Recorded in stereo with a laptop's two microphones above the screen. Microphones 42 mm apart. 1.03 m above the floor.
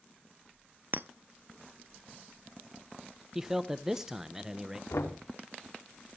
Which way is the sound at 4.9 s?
75° left (ahead or behind).